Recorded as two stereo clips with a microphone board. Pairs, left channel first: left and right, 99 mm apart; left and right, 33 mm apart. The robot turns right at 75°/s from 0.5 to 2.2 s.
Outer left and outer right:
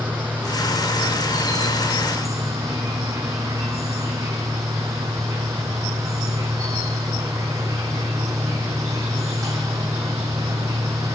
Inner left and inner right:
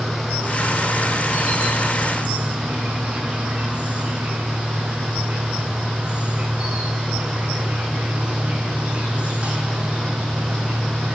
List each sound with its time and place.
0.0 s an insect: 160° right, 0.9 m; by 11.2 s 35° right, 0.9 m